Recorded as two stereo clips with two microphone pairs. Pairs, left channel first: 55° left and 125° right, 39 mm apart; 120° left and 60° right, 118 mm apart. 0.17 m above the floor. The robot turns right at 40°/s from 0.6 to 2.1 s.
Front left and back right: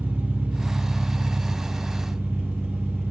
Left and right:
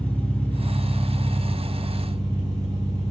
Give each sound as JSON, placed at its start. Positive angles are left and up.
{"t": 0.0, "sound": "an engine running", "azimuth_deg": -165, "distance_m": 1.4}